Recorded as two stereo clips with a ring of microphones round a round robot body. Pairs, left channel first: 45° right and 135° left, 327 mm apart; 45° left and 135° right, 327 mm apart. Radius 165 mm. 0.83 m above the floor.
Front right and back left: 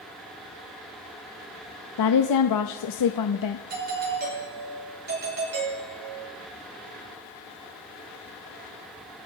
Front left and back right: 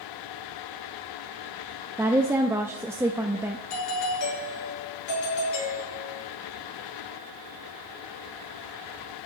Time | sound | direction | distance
2.0 | a woman speaking | 55° right | 0.7 m
3.7 | a doorbell | 75° left | 6.5 m